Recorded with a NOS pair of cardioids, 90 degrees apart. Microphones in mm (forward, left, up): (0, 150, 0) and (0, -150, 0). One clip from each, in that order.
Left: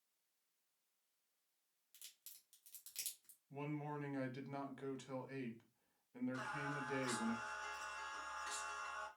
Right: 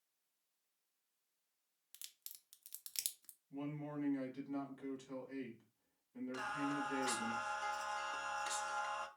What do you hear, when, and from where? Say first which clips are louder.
1.9 s a crack: right 5 dB; 50° right, 0.6 m
3.5 s a man speaking: even; 30° left, 1.1 m
6.3 s singing: right 6 dB; 55° right, 0.7 m